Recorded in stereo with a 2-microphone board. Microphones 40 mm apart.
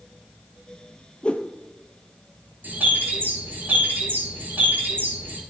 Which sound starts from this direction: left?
A whoosh, at 1.2 s.